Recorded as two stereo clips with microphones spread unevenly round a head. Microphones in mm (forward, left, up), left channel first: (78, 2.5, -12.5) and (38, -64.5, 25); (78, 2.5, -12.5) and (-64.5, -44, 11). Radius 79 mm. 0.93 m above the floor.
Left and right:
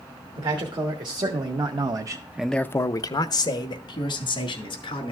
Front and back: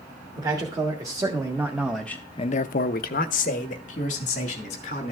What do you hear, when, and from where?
0.3 s a man speaking: 95° right, 2.0 m; by 5.1 s 65° left, 2.5 m